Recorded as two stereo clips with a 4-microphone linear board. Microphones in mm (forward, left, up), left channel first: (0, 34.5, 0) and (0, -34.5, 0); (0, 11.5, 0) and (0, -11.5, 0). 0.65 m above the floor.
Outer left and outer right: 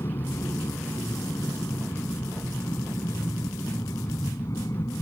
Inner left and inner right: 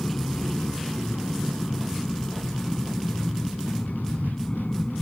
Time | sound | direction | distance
0.0 | an aircraft | 55° left (ahead or behind) | ?